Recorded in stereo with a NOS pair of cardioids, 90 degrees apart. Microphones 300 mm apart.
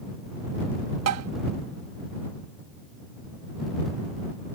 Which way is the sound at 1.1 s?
60° right.